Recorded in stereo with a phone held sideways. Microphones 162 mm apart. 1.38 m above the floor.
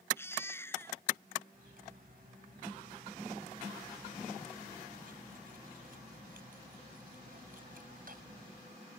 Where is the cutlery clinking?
65° right (ahead or behind).